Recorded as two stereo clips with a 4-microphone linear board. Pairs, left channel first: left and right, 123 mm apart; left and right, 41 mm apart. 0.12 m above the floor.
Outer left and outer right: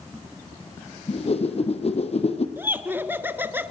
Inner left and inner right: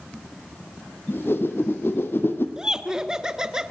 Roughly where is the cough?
I don't hear a cough.